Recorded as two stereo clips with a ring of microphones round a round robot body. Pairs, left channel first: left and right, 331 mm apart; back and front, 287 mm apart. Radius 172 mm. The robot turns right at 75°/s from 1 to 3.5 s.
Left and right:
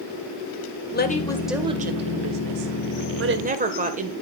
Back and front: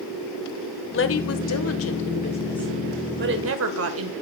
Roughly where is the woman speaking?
Behind left.